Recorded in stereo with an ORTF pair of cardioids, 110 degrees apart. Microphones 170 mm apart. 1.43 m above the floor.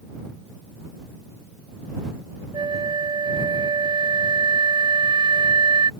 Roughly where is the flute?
Ahead right.